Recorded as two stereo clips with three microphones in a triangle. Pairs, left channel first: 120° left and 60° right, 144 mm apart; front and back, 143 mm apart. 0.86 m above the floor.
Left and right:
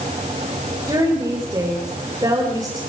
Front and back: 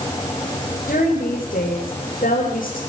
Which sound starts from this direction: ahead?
A woman speaking, at 0.9 s.